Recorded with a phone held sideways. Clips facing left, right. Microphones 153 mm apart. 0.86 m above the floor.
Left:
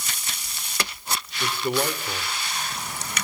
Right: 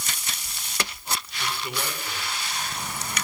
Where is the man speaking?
45° left (ahead or behind), 3 m.